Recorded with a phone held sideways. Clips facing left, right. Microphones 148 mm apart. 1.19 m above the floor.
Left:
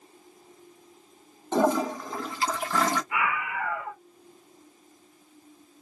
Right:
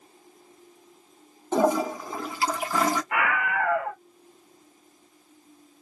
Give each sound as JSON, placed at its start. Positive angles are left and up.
{"t": 1.5, "sound": "a toilet flushing", "side_deg": -5, "distance_m": 0.7}
{"t": 3.1, "sound": "a scream", "side_deg": -65, "distance_m": 0.7}